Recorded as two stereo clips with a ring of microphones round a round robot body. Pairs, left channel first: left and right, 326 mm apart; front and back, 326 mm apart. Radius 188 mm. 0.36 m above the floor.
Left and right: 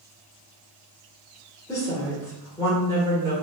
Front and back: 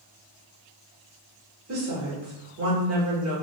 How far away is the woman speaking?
About 1.2 m.